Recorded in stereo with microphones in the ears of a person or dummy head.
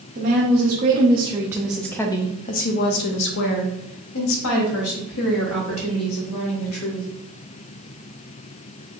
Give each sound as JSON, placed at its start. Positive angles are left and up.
{"t": 0.1, "sound": "a woman speaking", "side_deg": -45, "distance_m": 1.1}